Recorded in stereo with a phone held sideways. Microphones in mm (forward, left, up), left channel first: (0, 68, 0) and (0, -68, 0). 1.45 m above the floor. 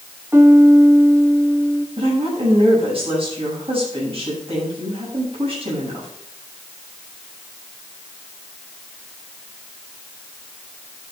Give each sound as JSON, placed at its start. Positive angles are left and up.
{"t": 0.3, "sound": "a piano", "side_deg": -20, "distance_m": 1.0}
{"t": 2.0, "sound": "a woman speaking", "side_deg": -45, "distance_m": 7.5}